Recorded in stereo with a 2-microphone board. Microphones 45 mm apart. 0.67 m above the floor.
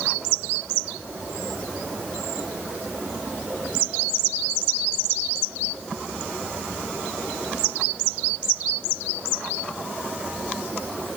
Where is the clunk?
No clunk in this recording.